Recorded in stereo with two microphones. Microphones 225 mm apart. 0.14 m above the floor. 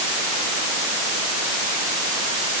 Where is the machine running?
I don't hear a machine running.